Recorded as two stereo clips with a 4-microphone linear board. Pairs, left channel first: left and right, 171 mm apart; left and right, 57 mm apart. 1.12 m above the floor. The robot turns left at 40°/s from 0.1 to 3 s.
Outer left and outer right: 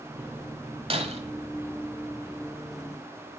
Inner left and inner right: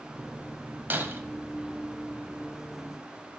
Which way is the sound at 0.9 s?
35° right (ahead or behind).